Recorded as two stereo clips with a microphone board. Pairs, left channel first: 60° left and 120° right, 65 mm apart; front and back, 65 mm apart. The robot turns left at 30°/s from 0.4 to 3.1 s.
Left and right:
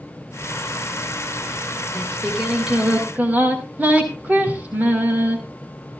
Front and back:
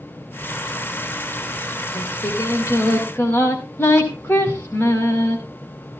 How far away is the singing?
About 4.5 m.